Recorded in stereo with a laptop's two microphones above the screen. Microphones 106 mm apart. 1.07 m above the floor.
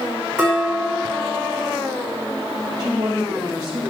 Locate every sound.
0.4 s dishes clattering: 10° right (ahead or behind), 5 m
2.8 s a woman speaking: 45° right (ahead or behind), 1.7 m